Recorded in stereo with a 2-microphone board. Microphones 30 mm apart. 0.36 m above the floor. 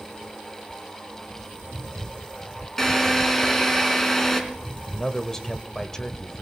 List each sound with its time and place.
2.8 s a drill: 10° left (ahead or behind), 3 m
4.9 s a man speaking: 20° left (ahead or behind), 1.1 m